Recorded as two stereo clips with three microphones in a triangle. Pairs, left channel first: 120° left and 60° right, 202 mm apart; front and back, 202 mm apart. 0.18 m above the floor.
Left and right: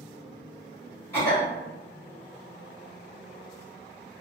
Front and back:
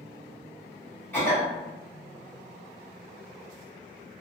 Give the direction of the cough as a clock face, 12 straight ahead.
10 o'clock.